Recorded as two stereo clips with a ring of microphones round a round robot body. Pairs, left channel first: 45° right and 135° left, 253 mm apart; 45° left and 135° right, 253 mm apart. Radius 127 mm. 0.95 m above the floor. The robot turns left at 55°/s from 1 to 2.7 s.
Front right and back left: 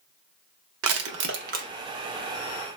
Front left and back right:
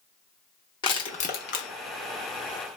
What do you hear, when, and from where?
0.8 s crushing: 115° left, 0.6 m; by 1.7 s 75° left, 0.6 m